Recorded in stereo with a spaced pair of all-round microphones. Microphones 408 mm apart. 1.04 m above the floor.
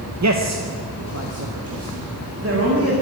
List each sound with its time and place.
0.2 s a man speaking: 40° right (ahead or behind), 0.7 m; by 2.9 s 35° right (ahead or behind), 2.5 m